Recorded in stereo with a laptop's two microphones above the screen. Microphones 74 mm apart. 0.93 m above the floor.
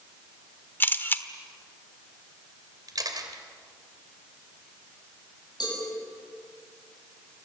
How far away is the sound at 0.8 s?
About 1.3 m.